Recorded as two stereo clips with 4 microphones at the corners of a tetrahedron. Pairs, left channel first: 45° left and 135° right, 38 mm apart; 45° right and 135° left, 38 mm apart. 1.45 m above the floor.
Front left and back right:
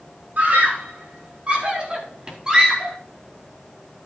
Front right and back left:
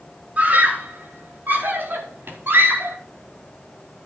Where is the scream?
Straight behind, 4 m; by 3.0 s 150° left, 4.5 m.